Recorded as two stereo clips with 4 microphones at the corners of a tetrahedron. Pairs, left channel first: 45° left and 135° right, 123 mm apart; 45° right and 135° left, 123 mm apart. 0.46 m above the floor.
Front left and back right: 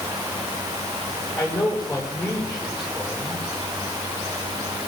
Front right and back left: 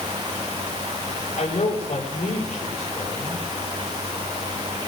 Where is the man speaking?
15° right, 8 m.